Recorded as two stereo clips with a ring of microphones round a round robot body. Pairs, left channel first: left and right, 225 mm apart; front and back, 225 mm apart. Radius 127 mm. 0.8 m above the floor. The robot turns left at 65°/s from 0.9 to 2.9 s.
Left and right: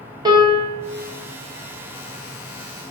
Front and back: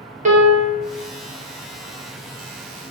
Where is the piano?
150° right, 1.1 m.